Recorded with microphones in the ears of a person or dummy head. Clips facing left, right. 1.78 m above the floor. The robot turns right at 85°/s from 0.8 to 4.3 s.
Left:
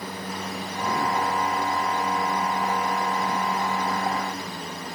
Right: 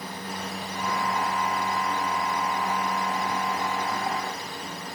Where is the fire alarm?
No fire alarm in this recording.